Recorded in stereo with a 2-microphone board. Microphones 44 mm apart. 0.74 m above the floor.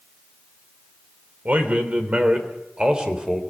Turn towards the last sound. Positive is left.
turn(degrees=-15)  # may be behind; listen again after turning